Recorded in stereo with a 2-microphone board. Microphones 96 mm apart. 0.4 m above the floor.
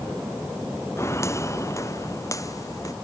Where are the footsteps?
30° left (ahead or behind); by 2.9 s 35° left (ahead or behind).